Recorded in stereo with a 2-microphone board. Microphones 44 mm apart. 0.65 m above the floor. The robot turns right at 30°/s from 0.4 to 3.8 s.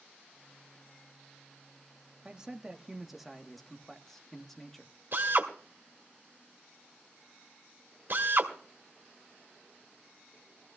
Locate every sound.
2.2 s a man speaking: 40° right, 1.0 m; by 5.0 s 10° left, 1.0 m
5.1 s a drill: 55° right (ahead or behind), 2 m